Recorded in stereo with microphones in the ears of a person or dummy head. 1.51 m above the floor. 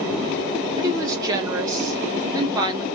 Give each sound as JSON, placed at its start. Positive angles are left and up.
{"t": 0.8, "sound": "a woman speaking", "side_deg": -20, "distance_m": 1.0}